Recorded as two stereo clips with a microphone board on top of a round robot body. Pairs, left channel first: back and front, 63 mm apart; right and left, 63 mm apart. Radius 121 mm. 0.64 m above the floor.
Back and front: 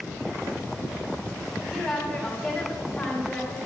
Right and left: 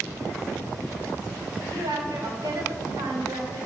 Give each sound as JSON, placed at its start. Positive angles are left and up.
{"t": 1.7, "sound": "a woman speaking", "azimuth_deg": 95, "distance_m": 2.5}